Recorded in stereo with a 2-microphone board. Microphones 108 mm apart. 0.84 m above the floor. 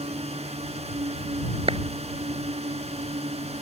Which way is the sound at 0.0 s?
75° right (ahead or behind).